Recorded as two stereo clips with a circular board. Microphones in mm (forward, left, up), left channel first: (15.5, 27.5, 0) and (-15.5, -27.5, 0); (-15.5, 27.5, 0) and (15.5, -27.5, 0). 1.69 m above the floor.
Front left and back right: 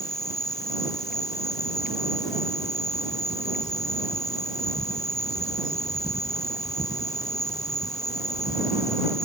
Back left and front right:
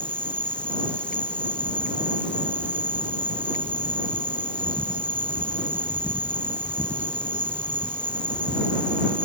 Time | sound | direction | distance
0.0 | an insect | 50° left | ?